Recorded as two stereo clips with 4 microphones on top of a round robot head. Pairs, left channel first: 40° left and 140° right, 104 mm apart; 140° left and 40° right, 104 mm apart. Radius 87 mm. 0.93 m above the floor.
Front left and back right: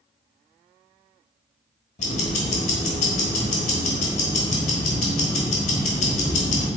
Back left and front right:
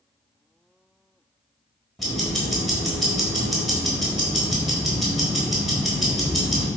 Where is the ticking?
50° left, 1.1 m.